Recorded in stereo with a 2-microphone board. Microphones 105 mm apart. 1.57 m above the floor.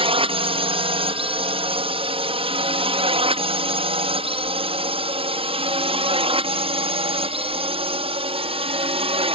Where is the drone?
65° right (ahead or behind).